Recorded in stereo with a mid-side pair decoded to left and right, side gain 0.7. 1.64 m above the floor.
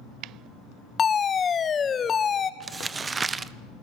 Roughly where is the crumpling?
Ahead.